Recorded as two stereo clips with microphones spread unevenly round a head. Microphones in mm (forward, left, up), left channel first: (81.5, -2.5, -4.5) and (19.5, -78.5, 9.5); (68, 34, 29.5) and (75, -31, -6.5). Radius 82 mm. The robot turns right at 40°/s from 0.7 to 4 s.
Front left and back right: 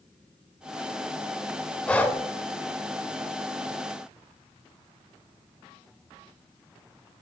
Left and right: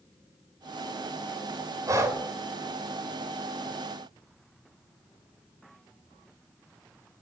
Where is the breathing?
35° right, 0.9 m; by 2.2 s 20° right, 0.9 m.